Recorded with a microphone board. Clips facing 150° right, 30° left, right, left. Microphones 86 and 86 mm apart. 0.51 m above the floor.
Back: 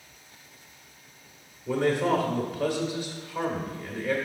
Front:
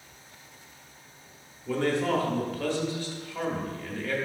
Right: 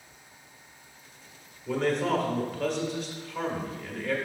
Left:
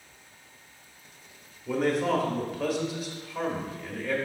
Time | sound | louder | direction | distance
1.7 | a man speaking | back 2 dB, left 1 dB | 170° left | 1.0 m